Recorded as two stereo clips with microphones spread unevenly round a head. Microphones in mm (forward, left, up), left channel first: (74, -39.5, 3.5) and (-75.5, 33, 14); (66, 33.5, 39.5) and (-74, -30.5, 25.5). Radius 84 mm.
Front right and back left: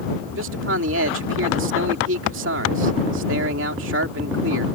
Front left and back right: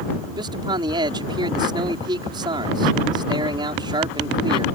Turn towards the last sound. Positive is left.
turn(degrees=140)